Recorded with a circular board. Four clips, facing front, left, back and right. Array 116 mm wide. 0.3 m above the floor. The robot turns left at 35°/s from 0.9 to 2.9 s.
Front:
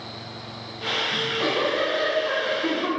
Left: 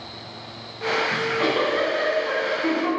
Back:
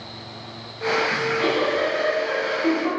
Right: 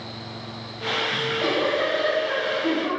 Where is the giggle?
105° left, 2 m; by 2.9 s 40° left, 2 m.